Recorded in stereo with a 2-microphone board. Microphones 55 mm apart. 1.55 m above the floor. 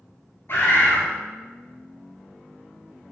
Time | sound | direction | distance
0.5 | a bird | 45° left (ahead or behind) | 0.9 m